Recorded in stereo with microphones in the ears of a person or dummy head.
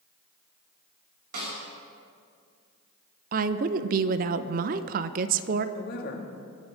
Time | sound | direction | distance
1.3 | a snare drum | 60° right (ahead or behind) | 5 m
3.3 | a woman speaking | 45° right (ahead or behind) | 0.7 m
5.8 | a woman speaking | 65° left (ahead or behind) | 2.5 m